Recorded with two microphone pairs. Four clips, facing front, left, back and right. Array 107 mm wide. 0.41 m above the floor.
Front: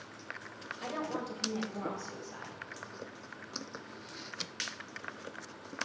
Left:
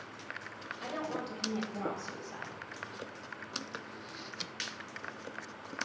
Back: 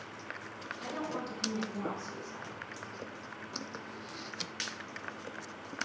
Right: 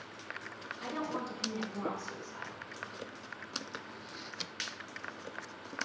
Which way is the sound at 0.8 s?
25° left.